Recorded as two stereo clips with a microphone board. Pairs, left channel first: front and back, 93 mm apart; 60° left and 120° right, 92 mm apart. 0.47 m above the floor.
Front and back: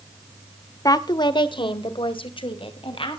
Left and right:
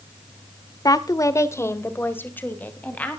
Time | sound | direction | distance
0.8 | a woman speaking | 30° left | 1.1 m